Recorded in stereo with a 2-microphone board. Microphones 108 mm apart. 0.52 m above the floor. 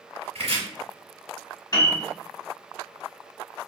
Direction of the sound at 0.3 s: 70° right (ahead or behind).